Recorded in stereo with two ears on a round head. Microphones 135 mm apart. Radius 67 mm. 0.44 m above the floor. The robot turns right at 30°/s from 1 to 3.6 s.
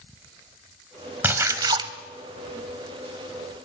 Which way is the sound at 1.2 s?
15° right (ahead or behind).